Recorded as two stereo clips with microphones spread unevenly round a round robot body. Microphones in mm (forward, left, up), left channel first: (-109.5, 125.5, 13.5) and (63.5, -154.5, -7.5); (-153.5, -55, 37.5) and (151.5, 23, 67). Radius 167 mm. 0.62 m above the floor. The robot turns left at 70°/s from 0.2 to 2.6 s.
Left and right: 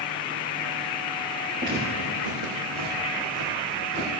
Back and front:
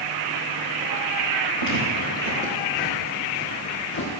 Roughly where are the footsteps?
Ahead.